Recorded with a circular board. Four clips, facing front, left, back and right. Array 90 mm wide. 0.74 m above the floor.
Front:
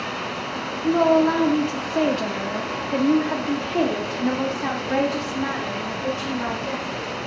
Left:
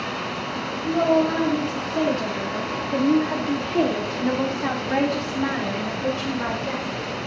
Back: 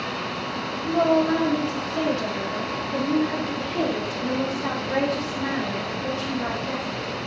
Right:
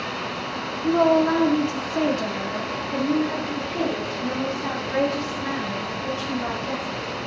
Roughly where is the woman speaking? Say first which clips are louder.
Right 2 dB, front 3 dB; ahead right.